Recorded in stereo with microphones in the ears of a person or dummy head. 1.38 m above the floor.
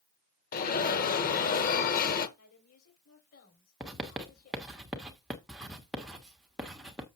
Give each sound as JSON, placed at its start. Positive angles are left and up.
{"t": 0.5, "sound": "an alarm", "side_deg": 50, "distance_m": 1.1}
{"t": 2.4, "sound": "a woman speaking", "side_deg": 80, "distance_m": 4.0}
{"t": 3.8, "sound": "writing", "side_deg": -5, "distance_m": 1.1}